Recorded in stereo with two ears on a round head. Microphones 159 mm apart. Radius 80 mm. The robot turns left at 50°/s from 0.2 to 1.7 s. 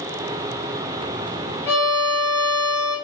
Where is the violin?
15° left (ahead or behind), 1.4 m.